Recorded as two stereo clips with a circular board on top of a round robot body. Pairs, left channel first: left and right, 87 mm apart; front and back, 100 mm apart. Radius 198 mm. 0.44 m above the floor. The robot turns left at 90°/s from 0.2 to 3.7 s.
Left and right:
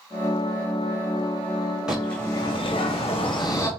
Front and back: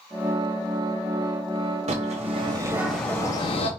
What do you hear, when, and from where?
1.9 s a bird: 170° right, 0.6 m; by 3.7 s 25° left, 0.6 m